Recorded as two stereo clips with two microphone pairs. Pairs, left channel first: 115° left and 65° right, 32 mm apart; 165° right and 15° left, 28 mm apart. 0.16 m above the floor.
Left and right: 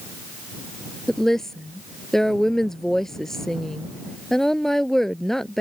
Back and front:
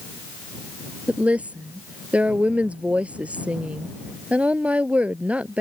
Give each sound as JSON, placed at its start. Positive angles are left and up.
{"t": 1.1, "sound": "a woman speaking", "azimuth_deg": 40}